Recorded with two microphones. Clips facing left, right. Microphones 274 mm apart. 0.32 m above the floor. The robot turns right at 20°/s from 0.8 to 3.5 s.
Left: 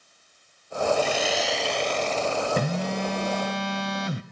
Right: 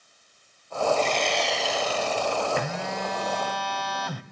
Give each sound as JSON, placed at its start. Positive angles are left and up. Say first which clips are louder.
{"t": 1.0, "sound": "sawing", "louder": "left 1 dB", "azimuth_deg": 170, "distance_m": 0.7}
{"t": 2.6, "sound": "a phone buzzing", "louder": "left 4 dB", "side_deg": 40, "distance_m": 0.8}